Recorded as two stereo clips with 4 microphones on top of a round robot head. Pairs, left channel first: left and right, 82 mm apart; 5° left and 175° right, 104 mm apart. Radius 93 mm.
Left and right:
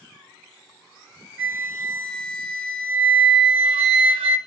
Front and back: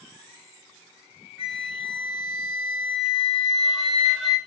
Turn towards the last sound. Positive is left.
turn(degrees=-85)